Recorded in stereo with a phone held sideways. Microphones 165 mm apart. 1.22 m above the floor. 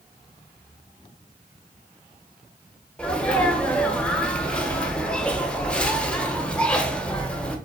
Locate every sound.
3.0 s a sneeze: 5° left (ahead or behind), 1.0 m